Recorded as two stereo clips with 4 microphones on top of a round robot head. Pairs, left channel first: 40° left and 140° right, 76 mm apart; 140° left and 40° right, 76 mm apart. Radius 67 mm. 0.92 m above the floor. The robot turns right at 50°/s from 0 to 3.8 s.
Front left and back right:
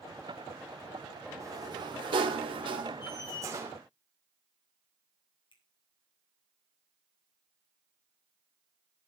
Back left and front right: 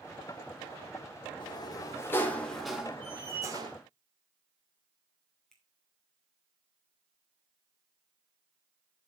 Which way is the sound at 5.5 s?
55° left.